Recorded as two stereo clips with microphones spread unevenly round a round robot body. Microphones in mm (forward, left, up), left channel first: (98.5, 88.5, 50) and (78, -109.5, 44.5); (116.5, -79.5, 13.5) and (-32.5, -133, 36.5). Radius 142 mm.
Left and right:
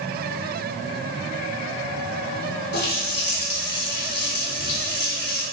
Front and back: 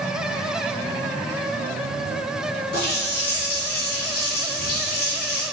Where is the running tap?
55° left, 3 m.